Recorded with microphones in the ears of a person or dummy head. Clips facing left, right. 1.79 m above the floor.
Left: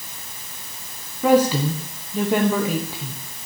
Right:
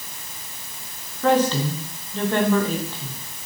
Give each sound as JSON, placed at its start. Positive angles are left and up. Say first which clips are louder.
{"t": 1.2, "sound": "a woman speaking", "louder": "left 3 dB", "side_deg": 10, "distance_m": 1.0}